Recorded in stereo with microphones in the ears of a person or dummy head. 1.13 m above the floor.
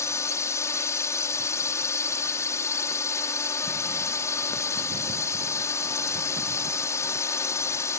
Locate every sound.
0.0 s a drone: 20° left (ahead or behind)